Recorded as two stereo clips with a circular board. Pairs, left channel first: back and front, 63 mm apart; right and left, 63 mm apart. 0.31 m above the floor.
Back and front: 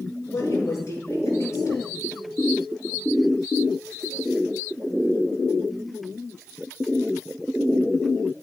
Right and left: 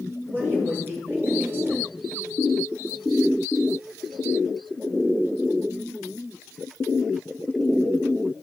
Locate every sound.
0.3 s a woman speaking: 140° left, 5.5 m